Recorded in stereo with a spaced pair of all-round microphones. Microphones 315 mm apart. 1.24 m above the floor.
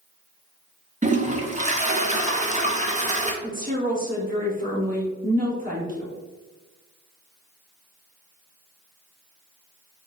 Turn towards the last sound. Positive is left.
turn(degrees=-25)  # may be behind; listen again after turning